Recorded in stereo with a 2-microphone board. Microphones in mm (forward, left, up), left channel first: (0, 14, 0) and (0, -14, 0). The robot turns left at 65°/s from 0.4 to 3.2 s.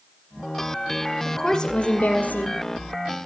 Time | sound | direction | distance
1.2 | a woman speaking | 175° left | 5.5 m